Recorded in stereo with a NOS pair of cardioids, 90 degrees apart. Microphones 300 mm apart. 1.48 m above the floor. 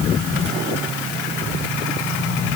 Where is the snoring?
No snoring in this recording.